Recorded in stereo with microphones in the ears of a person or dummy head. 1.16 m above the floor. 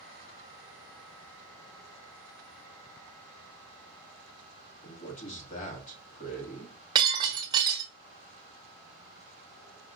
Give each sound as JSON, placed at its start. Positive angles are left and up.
{"t": 4.8, "sound": "a man speaking", "side_deg": 40, "distance_m": 1.7}
{"t": 7.0, "sound": "breaking glass", "side_deg": -25, "distance_m": 1.4}